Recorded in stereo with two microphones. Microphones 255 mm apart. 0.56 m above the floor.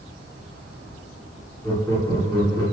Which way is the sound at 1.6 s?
10° left (ahead or behind).